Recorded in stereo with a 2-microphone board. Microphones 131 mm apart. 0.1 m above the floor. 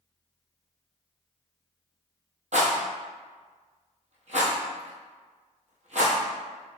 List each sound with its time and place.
2.5 s a rattle: 65° right (ahead or behind), 1.0 m